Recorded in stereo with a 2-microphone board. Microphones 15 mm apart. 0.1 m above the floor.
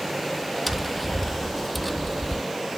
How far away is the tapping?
About 0.9 m.